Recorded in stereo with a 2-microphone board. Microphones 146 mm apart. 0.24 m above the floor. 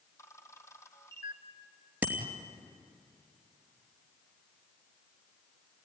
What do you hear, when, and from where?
0.2 s a camera shutter: 20° left (ahead or behind), 1.6 m
2.0 s a bicycle bell: 10° right (ahead or behind), 3 m